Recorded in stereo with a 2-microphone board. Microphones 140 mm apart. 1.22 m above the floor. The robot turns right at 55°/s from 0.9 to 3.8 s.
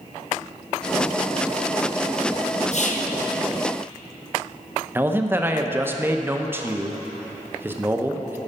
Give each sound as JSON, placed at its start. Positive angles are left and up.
{"t": 2.7, "sound": "whispering", "side_deg": 55, "distance_m": 0.8}
{"t": 5.0, "sound": "a man speaking", "side_deg": -15, "distance_m": 0.6}